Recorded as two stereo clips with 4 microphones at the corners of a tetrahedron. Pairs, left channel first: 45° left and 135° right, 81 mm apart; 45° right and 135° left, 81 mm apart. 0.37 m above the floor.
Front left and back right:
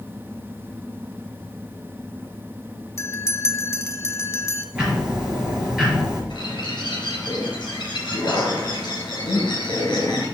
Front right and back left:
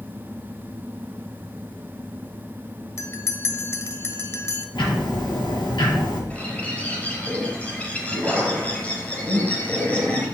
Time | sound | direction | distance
3.0 | a bell | straight ahead | 0.7 m
4.8 | ticking | 55° right | 4.5 m
6.3 | a bird | 25° left | 3.5 m